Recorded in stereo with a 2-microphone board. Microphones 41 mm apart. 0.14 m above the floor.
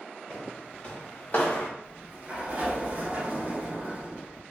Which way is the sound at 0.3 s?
20° left (ahead or behind).